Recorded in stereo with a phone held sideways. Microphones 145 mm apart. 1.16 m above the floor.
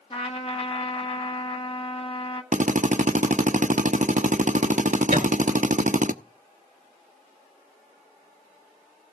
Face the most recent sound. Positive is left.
turn(degrees=-70)  # may be behind; listen again after turning